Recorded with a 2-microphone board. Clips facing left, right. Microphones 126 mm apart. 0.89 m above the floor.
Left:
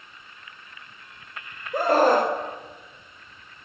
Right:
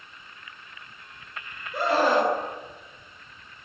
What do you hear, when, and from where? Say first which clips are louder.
1.7 s a scream: left 3 dB; 45° left (ahead or behind), 3.5 m